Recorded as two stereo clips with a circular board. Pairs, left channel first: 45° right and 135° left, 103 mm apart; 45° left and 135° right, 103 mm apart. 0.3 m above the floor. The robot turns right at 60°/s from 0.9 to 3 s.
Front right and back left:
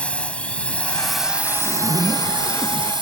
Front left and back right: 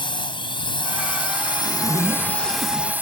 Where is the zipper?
160° left; by 2.9 s 120° right.